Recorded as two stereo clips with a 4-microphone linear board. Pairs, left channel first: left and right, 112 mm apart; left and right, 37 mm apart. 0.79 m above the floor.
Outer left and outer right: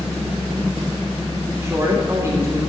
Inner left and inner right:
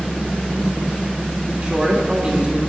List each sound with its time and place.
1.6 s a woman speaking: 25° right (ahead or behind), 2.5 m